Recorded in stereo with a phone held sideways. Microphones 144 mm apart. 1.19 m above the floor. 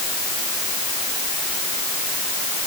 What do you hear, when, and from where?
Only background noise.